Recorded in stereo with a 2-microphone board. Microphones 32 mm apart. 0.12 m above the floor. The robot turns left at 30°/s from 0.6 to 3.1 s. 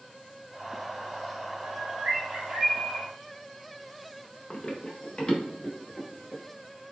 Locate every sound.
1.6 s a bird: 135° right, 1.5 m; by 3.0 s 175° right, 1.5 m
4.5 s running footsteps: 30° left (ahead or behind), 1.2 m; by 6.4 s 25° left (ahead or behind), 4 m